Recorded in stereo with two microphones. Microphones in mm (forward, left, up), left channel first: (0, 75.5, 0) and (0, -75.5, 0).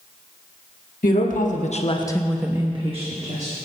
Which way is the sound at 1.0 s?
65° left (ahead or behind).